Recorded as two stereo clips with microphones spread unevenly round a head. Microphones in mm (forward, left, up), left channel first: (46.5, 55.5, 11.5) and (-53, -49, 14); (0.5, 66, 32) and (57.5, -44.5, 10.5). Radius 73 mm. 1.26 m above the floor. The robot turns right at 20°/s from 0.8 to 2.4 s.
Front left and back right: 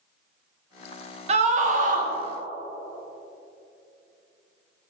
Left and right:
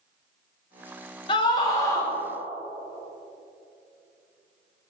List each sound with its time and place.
1.3 s a scream: 175° left, 1.3 m; by 2.1 s 165° right, 1.3 m